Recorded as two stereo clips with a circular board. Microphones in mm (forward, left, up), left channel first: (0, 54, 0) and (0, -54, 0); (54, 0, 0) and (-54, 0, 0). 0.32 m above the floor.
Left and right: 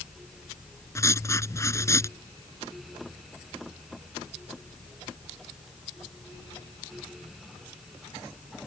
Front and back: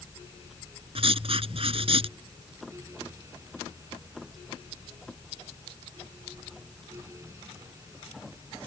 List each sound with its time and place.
0.9 s writing: 150° left